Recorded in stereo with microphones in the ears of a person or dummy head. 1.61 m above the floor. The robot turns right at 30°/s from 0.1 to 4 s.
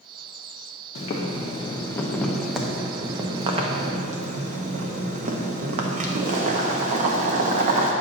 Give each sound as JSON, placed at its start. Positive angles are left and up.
{"t": 0.9, "sound": "boiling", "azimuth_deg": 135, "distance_m": 0.7}